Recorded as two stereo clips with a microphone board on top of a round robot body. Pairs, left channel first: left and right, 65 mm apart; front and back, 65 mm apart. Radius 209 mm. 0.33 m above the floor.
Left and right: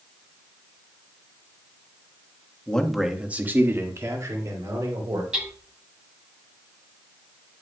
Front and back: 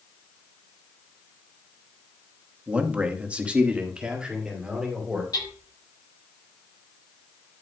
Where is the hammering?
15° right, 6.5 m.